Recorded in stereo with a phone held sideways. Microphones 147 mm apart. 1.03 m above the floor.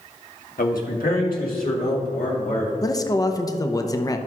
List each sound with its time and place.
0.6 s a man speaking: 85° left, 1.4 m; by 2.7 s 80° left, 3 m
2.8 s a man speaking: 25° left (ahead or behind), 0.6 m